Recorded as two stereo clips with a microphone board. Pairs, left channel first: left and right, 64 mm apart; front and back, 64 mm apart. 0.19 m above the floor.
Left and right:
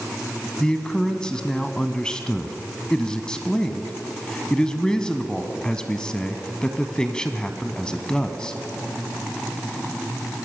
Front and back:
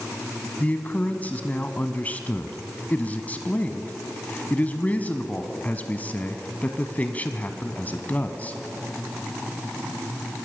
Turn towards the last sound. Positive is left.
turn(degrees=25)